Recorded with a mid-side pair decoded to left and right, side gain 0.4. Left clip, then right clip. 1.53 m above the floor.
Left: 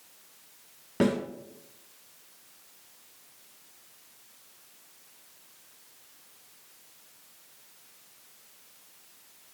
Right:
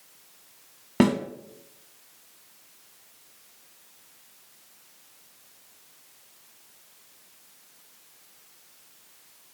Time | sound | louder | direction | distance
1.0 | a snare drum | right 4 dB | 65° right | 4.5 m